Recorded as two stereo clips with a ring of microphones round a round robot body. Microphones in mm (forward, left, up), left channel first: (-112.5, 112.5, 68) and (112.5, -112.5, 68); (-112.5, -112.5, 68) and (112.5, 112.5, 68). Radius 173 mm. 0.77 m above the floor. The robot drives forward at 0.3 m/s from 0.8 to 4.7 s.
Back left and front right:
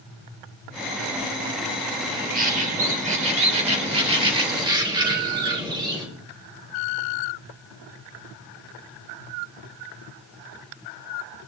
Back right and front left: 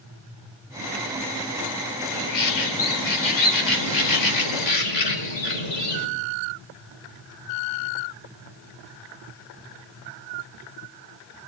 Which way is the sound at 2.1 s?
110° right.